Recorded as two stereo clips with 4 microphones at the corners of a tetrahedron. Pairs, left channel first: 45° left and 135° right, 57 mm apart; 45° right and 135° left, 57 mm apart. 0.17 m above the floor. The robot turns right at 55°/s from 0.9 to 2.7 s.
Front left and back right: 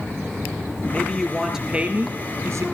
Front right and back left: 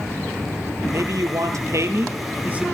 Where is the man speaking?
110° left, 3 m; by 2.6 s 155° right, 3 m.